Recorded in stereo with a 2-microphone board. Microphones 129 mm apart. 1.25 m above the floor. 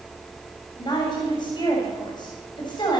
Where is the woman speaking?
35° left (ahead or behind), 7 m.